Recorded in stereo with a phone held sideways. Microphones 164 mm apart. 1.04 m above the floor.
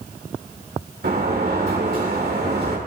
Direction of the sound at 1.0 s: 80° right.